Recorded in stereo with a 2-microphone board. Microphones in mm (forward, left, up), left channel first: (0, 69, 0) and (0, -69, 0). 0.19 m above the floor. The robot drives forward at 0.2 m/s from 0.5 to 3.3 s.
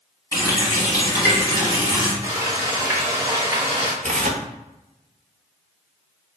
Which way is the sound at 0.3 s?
25° left (ahead or behind).